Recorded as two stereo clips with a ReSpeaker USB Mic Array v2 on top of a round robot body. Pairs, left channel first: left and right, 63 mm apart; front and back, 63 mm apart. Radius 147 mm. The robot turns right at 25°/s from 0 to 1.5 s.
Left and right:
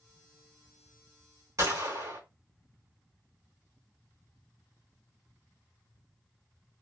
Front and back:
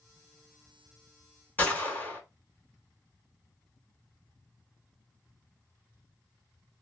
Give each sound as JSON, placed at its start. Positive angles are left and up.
{"t": 1.6, "sound": "a gunshot", "azimuth_deg": -65, "distance_m": 2.5}